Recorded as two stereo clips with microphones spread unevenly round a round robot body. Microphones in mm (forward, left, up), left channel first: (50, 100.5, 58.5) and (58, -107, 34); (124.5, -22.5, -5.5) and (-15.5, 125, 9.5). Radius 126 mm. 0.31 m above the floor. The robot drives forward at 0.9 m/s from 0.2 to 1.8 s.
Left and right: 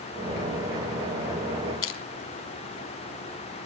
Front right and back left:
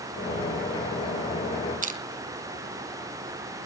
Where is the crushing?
85° left, 3 m.